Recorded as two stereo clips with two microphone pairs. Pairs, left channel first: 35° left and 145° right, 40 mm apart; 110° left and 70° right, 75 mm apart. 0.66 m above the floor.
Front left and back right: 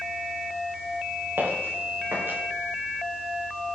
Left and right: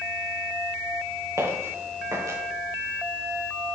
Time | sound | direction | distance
1.4 | footsteps | 115° right | 10 m